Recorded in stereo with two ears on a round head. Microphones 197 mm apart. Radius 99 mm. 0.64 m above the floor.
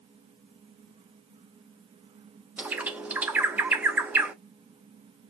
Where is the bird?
5° right (ahead or behind), 0.6 m.